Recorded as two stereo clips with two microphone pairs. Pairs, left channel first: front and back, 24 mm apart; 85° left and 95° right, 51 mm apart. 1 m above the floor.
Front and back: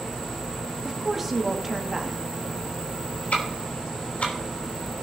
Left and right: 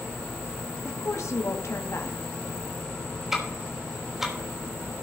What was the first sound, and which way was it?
A woman speaking, 95° left.